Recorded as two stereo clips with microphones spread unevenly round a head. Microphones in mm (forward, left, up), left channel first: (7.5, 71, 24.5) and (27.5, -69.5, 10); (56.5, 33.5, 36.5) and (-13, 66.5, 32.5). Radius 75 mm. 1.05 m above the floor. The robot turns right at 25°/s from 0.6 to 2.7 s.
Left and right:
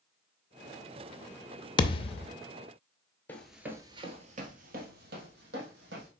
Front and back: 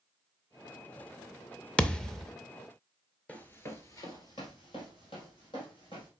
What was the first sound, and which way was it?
A thud, 45° left.